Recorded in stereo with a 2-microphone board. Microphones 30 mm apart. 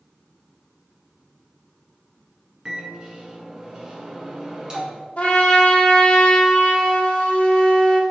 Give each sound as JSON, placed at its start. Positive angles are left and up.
{"t": 2.6, "sound": "a microwave", "side_deg": -30, "distance_m": 1.2}
{"t": 5.2, "sound": "a trumpet", "side_deg": 50, "distance_m": 1.5}